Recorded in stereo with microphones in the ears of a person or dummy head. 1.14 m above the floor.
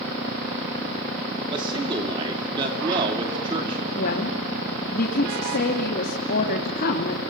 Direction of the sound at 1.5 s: 20° right (ahead or behind).